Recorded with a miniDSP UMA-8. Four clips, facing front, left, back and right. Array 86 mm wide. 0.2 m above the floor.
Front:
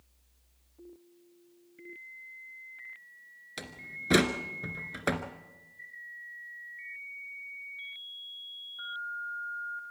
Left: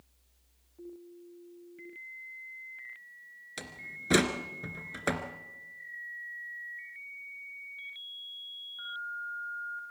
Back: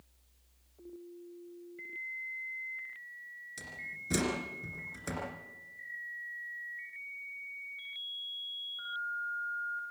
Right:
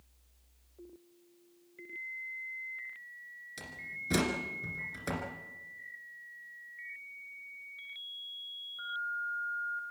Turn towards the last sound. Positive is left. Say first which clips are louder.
# left 1 dB, front 4 dB
turn(degrees=40)